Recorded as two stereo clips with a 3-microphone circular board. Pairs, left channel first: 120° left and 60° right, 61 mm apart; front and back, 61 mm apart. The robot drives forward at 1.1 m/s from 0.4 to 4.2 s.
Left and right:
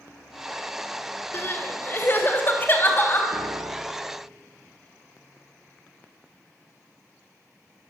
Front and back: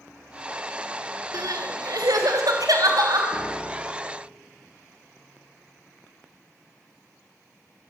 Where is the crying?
170° left, 2 m; by 3.2 s 175° left, 4 m.